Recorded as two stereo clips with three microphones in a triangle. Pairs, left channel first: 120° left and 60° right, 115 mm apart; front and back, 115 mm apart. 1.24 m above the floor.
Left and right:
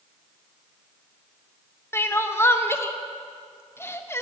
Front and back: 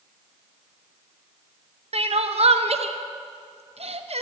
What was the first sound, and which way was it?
Crying, 175° right.